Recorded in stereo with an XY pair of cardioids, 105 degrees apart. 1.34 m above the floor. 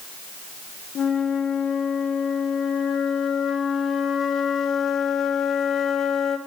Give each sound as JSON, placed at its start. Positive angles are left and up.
{"t": 0.9, "sound": "a flute", "azimuth_deg": 50, "distance_m": 1.0}